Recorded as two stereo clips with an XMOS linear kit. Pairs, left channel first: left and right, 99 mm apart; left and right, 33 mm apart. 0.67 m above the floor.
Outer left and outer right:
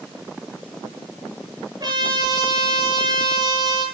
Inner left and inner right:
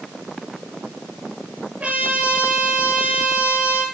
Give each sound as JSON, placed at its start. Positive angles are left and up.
{"t": 1.8, "sound": "a trumpet", "side_deg": -40, "distance_m": 8.0}